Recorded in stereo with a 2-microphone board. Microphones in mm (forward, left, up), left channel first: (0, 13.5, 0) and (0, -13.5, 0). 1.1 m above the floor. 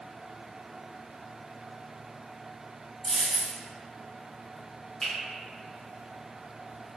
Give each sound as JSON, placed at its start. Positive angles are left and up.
{"t": 3.0, "sound": "a dropped coin", "side_deg": 20, "distance_m": 1.0}
{"t": 5.0, "sound": "a finger snap", "side_deg": 15, "distance_m": 1.4}